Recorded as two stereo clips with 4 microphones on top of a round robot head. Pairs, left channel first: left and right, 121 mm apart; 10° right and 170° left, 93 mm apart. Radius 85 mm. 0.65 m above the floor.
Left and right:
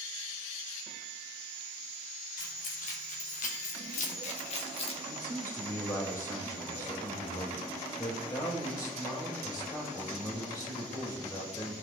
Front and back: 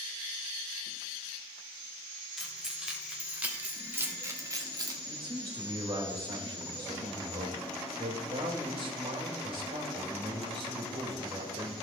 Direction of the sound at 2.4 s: 85° left.